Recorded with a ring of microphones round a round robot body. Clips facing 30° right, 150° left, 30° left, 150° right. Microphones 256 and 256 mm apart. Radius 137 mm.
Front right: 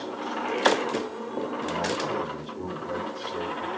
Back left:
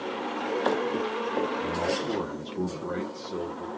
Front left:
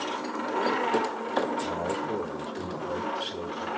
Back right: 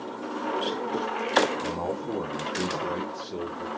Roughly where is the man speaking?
Behind.